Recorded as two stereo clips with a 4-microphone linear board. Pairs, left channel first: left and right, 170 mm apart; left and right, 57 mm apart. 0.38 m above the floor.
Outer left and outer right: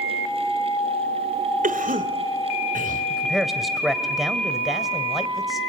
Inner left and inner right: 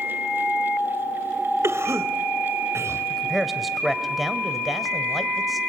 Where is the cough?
50° right (ahead or behind), 1.7 m.